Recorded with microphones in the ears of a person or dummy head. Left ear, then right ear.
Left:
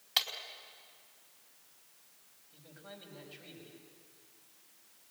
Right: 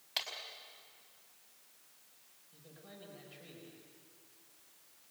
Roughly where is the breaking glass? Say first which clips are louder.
Left 7 dB; centre.